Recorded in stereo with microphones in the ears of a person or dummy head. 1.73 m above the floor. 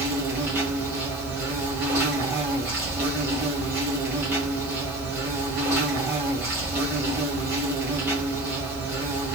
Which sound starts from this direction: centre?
An insect, at 0.0 s.